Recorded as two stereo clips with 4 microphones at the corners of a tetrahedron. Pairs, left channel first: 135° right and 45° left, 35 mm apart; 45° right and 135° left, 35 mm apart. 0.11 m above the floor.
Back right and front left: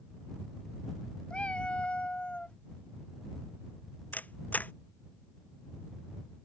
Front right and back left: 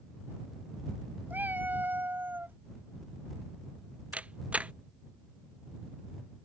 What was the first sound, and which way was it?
A cat meowing, 170° left.